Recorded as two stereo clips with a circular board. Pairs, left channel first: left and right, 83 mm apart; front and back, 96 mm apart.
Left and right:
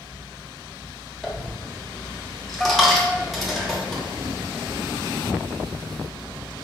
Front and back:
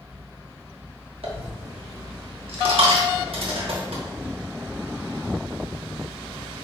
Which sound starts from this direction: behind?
A dropped coin, at 1.2 s.